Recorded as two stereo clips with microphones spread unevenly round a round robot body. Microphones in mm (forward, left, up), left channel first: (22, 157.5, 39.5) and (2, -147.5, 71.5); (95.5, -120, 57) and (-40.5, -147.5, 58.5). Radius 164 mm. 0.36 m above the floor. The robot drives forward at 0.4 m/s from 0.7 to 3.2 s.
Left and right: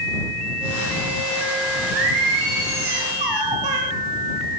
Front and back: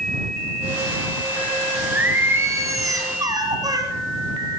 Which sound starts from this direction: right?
Singing, at 1.9 s.